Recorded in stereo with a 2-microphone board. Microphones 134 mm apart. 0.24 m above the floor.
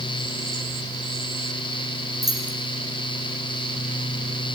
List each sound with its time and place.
2.2 s keys jangling: 60° right (ahead or behind), 7.5 m